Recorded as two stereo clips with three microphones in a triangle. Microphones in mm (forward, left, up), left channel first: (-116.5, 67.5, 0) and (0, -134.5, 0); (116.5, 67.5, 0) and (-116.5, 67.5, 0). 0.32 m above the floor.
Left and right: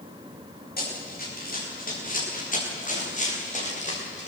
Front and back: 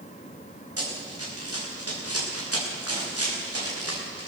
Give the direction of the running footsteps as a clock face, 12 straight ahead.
6 o'clock.